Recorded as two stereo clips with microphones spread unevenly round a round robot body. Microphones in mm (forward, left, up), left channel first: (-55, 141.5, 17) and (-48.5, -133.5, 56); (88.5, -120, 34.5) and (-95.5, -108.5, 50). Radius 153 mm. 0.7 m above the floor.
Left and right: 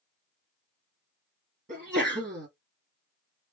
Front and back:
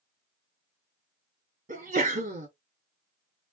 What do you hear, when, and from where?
1.7 s a sneeze: 145° right, 1.6 m